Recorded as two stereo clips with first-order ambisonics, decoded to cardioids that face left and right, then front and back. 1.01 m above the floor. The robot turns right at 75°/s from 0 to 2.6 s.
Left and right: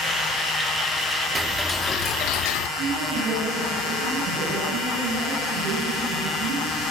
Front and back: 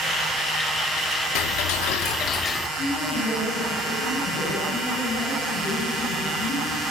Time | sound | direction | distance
1.4 | ticking | 15° right | 1.3 m
2.8 | a man speaking | 55° right | 10 m